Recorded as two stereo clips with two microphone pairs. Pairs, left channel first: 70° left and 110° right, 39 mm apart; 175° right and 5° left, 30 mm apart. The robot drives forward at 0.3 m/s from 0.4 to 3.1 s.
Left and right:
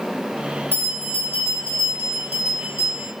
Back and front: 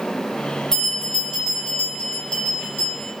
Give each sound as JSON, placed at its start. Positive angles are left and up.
{"t": 0.7, "sound": "a bell", "azimuth_deg": -105, "distance_m": 1.0}